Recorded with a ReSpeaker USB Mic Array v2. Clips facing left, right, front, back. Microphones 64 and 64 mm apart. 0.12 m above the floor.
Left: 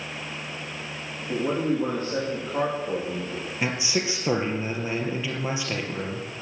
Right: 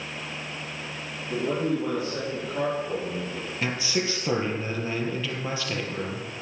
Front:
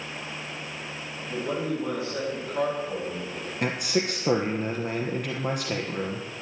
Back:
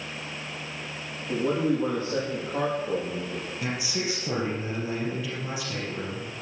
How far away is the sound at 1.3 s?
About 7 m.